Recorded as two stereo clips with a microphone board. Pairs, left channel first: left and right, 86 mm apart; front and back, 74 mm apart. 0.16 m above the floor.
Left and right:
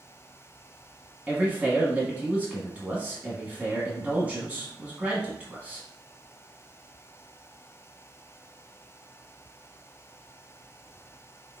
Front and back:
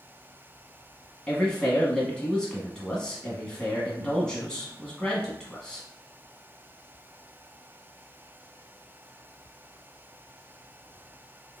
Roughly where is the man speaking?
Ahead right.